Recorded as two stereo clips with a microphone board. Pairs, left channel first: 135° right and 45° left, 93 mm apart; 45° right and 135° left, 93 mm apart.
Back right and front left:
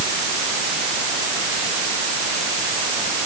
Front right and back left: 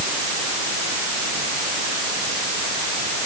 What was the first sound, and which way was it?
Only background noise.